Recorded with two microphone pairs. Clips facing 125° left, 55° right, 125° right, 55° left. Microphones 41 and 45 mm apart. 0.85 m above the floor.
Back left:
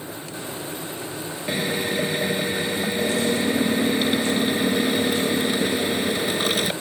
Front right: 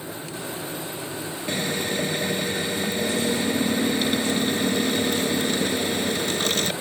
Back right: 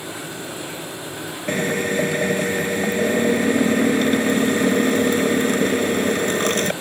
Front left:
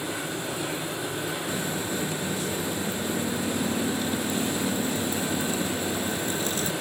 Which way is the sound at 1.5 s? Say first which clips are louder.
Back left 2 dB, back right 8 dB; 155° right.